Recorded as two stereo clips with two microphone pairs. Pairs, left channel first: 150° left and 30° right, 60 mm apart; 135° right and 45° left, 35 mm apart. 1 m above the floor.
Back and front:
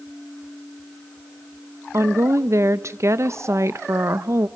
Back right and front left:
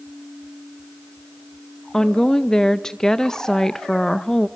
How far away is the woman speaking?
About 0.6 m.